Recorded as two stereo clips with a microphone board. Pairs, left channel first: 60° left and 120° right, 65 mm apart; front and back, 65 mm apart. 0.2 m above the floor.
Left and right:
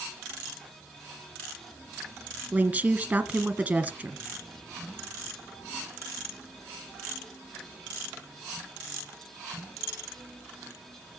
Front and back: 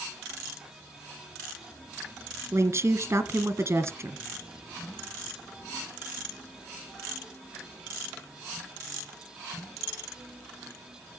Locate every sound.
2.5 s a woman speaking: 175° right, 1.6 m